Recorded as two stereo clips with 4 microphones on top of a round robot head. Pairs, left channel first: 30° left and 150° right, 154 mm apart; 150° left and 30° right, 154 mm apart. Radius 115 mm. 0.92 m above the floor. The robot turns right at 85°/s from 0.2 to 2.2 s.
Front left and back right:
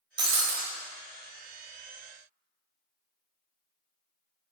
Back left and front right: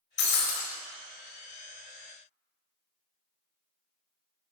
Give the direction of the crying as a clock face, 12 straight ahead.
I don't hear crying.